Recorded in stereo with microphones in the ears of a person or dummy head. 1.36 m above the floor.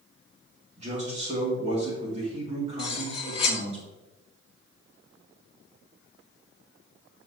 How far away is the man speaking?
About 2 m.